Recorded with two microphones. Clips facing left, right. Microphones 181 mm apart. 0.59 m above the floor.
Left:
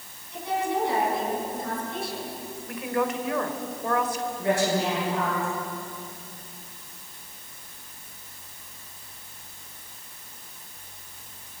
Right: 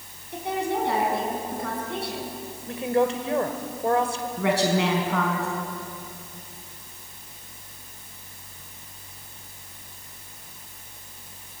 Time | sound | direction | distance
0.3 | a woman speaking | 60° right (ahead or behind) | 6 m
2.7 | a woman speaking | 30° right (ahead or behind) | 2.5 m
4.4 | a woman speaking | 80° right | 4.5 m